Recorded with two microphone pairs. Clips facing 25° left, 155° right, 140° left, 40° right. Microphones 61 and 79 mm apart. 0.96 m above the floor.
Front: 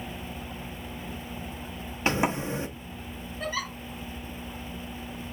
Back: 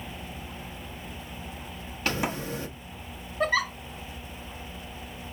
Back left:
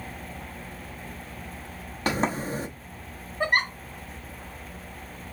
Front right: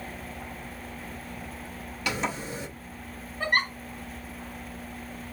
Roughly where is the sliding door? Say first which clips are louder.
Front 3 dB, back left 5 dB; left.